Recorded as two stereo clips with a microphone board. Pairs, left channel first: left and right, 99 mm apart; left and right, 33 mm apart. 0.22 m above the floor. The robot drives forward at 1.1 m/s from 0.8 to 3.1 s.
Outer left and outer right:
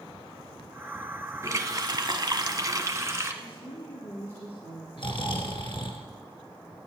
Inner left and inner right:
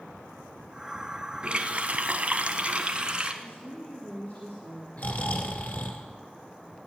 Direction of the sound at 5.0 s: 60° left (ahead or behind).